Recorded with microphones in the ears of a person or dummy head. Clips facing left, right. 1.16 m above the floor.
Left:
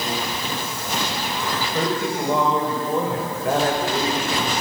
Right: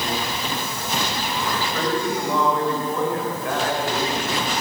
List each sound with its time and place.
1.7 s a woman speaking: 15° left (ahead or behind), 6 m; by 4.2 s 35° left (ahead or behind), 5 m